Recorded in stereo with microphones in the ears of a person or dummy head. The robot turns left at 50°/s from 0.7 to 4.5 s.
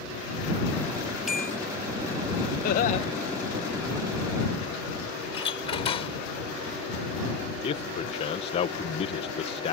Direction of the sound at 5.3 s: 30° left (ahead or behind).